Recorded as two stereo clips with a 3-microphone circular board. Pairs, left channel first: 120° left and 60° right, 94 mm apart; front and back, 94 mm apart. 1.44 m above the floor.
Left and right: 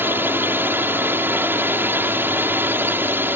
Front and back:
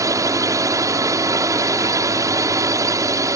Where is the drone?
125° right.